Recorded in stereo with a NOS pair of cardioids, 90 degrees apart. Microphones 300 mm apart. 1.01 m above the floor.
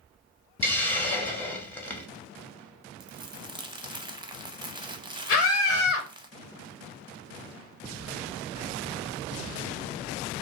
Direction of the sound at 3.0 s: 15° right.